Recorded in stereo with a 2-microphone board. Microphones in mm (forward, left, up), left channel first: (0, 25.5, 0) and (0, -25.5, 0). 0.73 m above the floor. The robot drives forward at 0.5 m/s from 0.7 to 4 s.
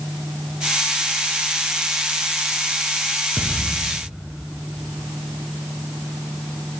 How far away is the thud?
About 2 m.